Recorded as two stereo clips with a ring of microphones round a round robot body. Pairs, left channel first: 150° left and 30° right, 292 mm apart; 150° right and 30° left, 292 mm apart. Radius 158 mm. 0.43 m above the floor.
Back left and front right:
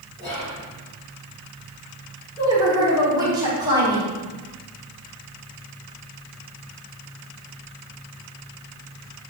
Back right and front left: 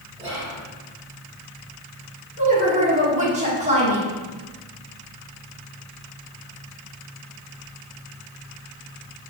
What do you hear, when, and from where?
0.2 s whispering: 100° left, 1.9 m
2.4 s a woman speaking: 25° left, 1.0 m